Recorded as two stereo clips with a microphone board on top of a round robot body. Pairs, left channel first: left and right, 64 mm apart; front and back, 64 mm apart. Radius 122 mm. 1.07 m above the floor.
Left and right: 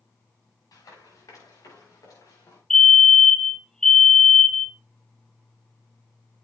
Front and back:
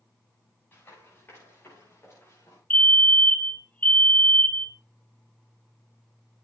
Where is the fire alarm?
15° left, 1.2 m.